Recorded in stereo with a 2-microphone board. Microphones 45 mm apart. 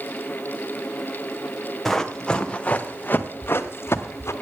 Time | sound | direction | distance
1.9 | running footsteps | 5° left (ahead or behind) | 1.4 m